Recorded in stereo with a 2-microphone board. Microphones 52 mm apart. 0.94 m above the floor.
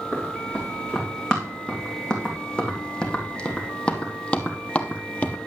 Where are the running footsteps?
15° left (ahead or behind), 4 m; by 5.4 s 25° left (ahead or behind), 1.0 m.